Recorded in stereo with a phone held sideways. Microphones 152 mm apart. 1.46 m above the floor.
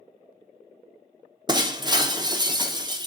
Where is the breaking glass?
30° right (ahead or behind), 0.7 m.